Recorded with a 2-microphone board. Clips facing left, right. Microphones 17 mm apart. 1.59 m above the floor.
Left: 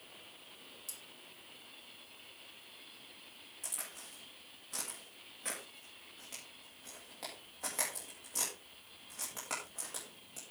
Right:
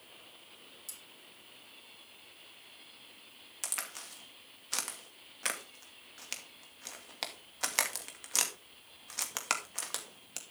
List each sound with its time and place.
0.9 s cutlery clinking: centre (ahead or behind), 2.5 m
3.6 s a crack: 65° right (ahead or behind), 2 m